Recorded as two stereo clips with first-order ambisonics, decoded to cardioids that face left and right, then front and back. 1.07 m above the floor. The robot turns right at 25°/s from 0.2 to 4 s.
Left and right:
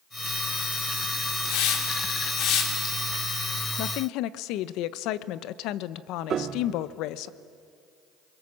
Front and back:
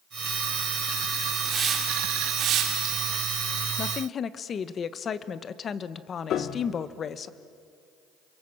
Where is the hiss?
100° left, 3 m; by 3.1 s 145° left, 3 m.